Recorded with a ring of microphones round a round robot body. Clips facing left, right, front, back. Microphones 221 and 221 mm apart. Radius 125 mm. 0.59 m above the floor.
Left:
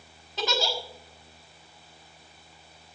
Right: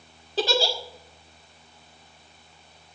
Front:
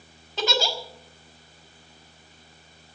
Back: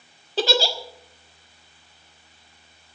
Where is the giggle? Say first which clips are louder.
Right 5 dB, back 4 dB; 135° right, 1.5 m.